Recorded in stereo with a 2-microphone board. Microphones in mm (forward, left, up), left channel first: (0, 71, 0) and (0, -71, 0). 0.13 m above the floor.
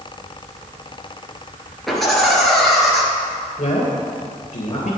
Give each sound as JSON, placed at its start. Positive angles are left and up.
{"t": 1.9, "sound": "laughter", "side_deg": 0, "distance_m": 2.0}
{"t": 3.6, "sound": "a man speaking", "side_deg": 55, "distance_m": 3.0}